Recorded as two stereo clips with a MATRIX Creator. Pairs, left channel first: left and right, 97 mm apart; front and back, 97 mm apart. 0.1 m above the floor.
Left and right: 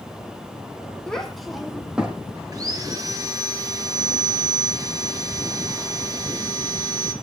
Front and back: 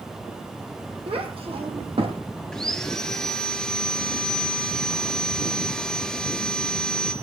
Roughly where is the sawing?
Right.